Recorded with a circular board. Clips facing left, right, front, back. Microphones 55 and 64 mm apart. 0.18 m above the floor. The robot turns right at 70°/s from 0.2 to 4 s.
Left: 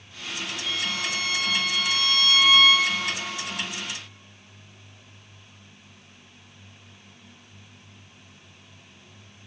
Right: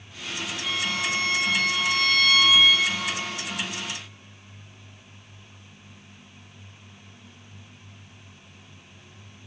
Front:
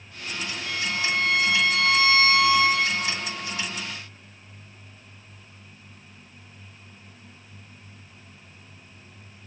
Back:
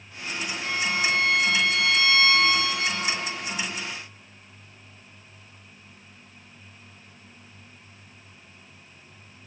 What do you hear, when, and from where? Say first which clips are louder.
0.6 s a violin: right 3 dB, back 3 dB; 135° right, 5.5 m; by 3.0 s 25° left, 5.5 m